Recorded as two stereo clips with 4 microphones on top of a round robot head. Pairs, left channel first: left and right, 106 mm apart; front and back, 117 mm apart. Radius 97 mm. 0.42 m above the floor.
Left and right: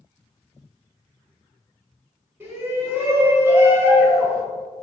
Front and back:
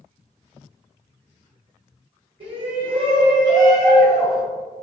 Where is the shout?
155° right, 1.9 m; by 4.4 s 125° right, 1.2 m.